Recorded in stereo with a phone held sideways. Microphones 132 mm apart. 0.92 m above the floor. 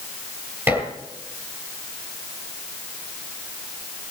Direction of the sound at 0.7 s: 15° right (ahead or behind).